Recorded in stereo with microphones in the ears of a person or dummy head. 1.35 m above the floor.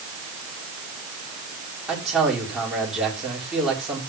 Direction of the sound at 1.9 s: 5° right (ahead or behind).